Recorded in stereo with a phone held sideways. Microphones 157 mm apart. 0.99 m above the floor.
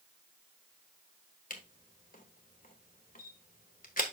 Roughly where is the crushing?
I don't hear crushing.